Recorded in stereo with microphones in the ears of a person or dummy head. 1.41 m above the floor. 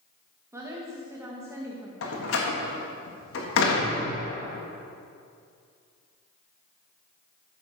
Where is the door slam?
75° left (ahead or behind), 1.7 m.